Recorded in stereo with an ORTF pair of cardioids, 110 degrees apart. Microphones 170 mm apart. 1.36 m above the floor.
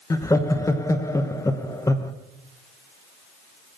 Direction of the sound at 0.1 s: 20° left.